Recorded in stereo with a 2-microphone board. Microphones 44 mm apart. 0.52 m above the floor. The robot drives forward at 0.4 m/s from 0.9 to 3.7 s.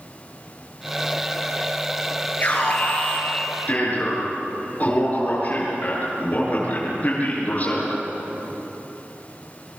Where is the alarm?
35° left (ahead or behind), 9.5 m.